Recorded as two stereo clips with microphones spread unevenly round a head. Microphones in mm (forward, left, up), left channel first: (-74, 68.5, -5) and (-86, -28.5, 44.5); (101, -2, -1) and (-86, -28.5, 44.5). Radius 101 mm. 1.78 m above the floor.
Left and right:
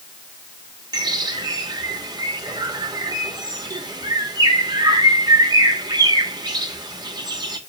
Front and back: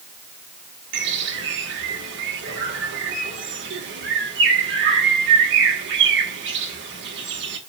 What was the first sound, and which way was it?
A bird, 145° right.